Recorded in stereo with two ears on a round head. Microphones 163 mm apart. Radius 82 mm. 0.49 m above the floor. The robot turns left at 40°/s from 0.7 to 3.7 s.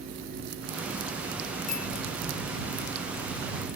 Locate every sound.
1.7 s a bicycle bell: 45° left (ahead or behind); by 1.9 s 55° left (ahead or behind)